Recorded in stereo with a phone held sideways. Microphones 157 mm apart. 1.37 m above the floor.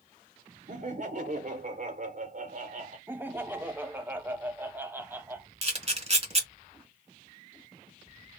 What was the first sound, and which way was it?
Laughter, 50° right (ahead or behind).